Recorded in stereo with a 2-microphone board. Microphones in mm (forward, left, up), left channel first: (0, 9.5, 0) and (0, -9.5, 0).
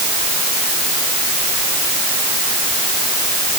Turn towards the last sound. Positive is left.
No sound to turn to.